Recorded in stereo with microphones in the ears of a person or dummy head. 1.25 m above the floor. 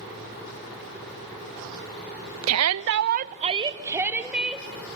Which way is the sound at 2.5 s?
80° right.